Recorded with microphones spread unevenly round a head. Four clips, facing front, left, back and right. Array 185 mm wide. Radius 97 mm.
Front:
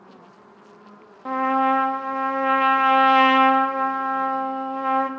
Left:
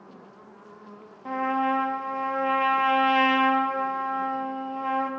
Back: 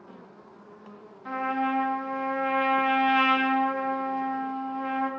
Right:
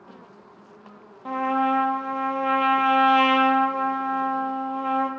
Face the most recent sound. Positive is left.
turn(degrees=-10)